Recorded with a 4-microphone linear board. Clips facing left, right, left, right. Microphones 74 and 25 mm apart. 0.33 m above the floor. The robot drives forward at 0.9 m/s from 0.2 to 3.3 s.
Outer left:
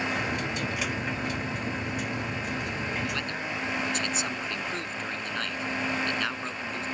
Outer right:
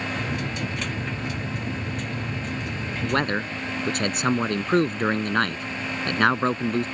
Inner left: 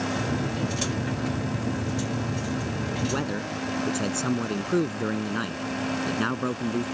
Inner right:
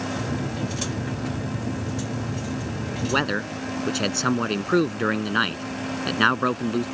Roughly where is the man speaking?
Right.